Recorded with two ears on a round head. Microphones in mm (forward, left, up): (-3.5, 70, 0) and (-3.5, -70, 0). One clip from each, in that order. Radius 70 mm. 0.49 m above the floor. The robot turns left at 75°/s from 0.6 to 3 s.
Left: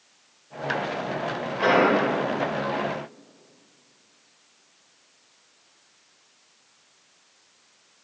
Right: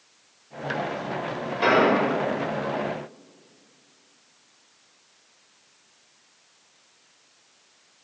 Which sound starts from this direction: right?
An explosion, at 1.6 s.